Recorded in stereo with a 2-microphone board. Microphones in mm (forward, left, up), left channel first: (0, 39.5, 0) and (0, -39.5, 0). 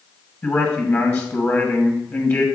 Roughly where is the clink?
No clink in this recording.